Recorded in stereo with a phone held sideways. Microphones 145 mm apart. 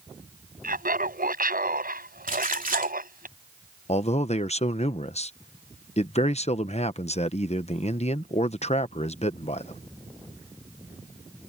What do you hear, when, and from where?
0.6 s laughter: 80° right; by 3.3 s 85° right
2.3 s a splash: 70° right (ahead or behind)
3.9 s a man speaking: 50° left (ahead or behind)